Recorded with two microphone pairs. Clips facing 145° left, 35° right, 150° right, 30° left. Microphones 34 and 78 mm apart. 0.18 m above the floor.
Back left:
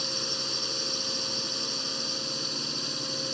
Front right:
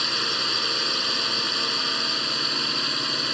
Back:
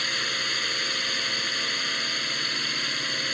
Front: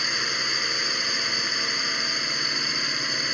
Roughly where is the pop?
No pop in this recording.